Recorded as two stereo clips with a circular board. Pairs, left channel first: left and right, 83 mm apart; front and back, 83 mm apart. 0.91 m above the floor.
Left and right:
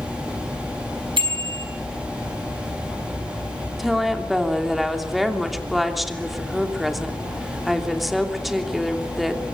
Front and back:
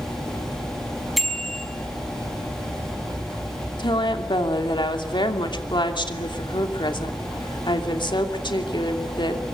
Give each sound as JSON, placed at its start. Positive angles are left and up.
{"t": 1.2, "sound": "a bicycle bell", "azimuth_deg": -90, "distance_m": 5.0}
{"t": 3.8, "sound": "a woman speaking", "azimuth_deg": 0, "distance_m": 2.5}